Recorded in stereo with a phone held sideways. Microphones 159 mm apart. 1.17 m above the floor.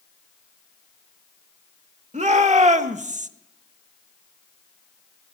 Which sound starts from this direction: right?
A shout, at 2.1 s.